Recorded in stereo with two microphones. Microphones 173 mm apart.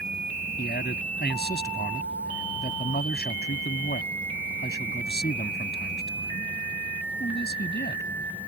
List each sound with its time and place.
0.6 s a man speaking: 70° left (ahead or behind)